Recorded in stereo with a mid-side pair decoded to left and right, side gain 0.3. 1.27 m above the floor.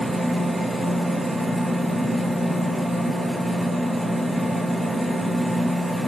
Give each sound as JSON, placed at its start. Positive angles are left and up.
{"t": 0.0, "sound": "a machine running", "azimuth_deg": -30, "distance_m": 0.8}